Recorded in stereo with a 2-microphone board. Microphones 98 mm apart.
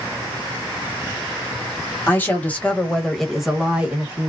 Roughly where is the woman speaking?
Left.